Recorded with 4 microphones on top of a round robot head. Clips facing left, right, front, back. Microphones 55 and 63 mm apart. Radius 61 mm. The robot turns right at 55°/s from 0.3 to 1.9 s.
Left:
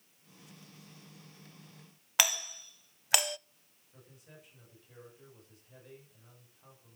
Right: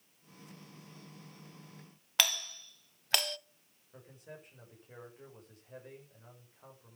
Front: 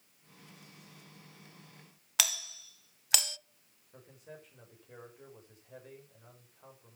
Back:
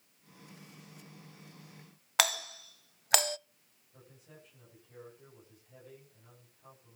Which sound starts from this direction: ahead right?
A man speaking, at 3.9 s.